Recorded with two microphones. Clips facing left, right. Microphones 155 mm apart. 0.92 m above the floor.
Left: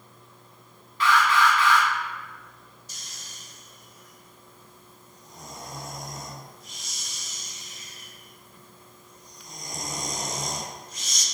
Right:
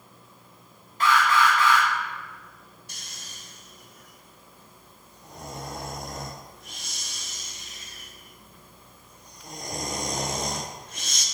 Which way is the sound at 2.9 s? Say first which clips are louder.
Right 1 dB; 60° right (ahead or behind).